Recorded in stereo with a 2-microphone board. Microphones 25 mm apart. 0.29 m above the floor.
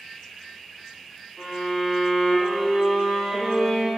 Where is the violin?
25° left (ahead or behind), 0.8 m.